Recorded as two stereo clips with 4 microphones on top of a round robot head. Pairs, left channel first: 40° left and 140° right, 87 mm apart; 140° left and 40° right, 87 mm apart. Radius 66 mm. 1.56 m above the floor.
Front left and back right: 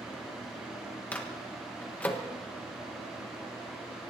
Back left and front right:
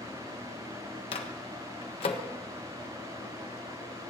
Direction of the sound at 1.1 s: 115° left.